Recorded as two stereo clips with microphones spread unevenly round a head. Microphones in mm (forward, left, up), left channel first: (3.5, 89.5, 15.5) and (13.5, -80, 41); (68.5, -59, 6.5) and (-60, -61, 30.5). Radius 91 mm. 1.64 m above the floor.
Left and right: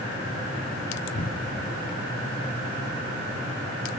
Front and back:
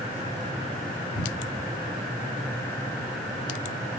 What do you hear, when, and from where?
1.1 s a cupboard door: 55° left, 1.2 m